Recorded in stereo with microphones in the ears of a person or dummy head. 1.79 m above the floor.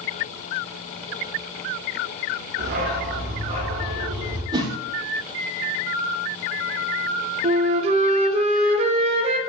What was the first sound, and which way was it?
A dog barking, 45° right (ahead or behind).